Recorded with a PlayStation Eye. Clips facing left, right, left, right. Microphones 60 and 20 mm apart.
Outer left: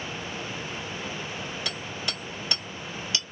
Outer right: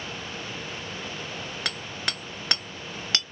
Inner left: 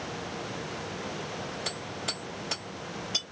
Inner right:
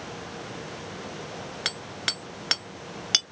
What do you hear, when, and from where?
1.6 s hammering: 70° right (ahead or behind), 1.8 m